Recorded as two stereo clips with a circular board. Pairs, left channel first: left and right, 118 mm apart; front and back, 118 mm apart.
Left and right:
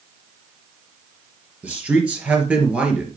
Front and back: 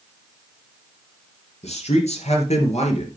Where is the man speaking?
10° right, 4 m.